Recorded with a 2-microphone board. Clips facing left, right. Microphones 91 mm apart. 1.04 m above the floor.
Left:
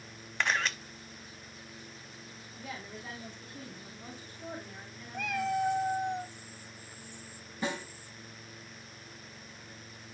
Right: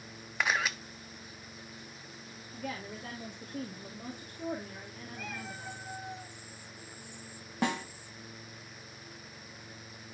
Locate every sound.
0.4 s a camera shutter: 5° right (ahead or behind), 0.6 m
2.5 s a woman speaking: 65° right (ahead or behind), 2.5 m
5.1 s a cat meowing: 70° left (ahead or behind), 1.0 m
7.6 s a snare drum: 70° right (ahead or behind), 2.5 m